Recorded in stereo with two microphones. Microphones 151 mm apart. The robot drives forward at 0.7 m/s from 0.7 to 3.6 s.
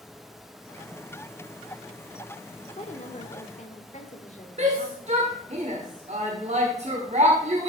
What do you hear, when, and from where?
2.7 s a woman speaking: 50° left (ahead or behind), 1.2 m
4.6 s a shout: 50° right (ahead or behind), 1.5 m